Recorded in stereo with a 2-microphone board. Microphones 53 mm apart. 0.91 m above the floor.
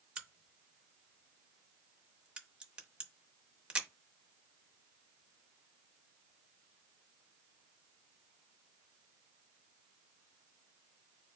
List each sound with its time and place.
0.2 s a crack: 20° right (ahead or behind), 0.6 m